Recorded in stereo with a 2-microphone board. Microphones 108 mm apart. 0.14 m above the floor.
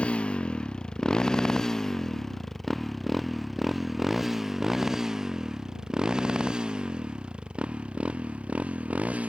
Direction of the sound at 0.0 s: 10° left (ahead or behind).